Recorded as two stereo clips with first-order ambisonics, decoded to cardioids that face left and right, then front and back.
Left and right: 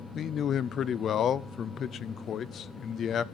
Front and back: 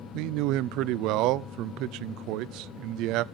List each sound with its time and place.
0.1 s a man speaking: 150° left, 0.5 m